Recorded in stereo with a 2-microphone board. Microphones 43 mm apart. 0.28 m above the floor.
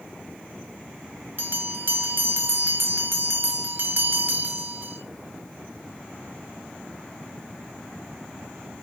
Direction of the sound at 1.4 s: 55° right (ahead or behind).